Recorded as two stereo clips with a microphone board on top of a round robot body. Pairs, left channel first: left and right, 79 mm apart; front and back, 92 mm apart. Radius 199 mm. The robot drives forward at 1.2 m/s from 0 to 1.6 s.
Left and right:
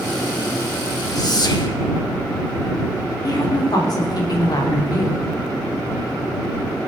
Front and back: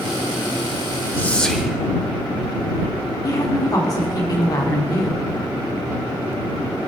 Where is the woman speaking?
50° left, 2.5 m.